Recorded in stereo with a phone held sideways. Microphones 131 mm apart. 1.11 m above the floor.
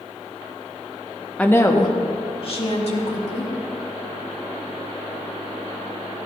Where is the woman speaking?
10° left (ahead or behind), 0.9 m; by 3.5 s 60° left (ahead or behind), 3 m.